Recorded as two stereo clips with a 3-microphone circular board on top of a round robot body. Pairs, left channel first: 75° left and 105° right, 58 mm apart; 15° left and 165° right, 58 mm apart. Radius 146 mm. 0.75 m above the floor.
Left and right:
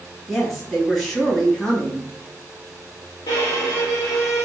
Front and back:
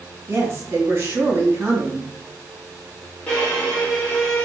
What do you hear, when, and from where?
0.3 s a woman speaking: 155° left, 1.6 m
3.3 s a violin: 85° left, 0.9 m